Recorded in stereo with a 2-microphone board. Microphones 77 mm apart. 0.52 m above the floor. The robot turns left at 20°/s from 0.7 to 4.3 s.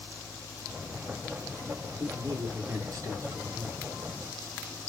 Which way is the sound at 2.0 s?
90° right.